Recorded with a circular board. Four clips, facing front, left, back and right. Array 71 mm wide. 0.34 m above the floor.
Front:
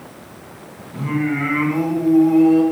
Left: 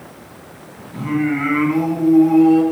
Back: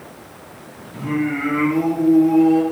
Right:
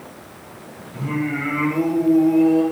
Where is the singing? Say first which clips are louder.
Left 5 dB, front 1 dB; 60° left, 2.5 m.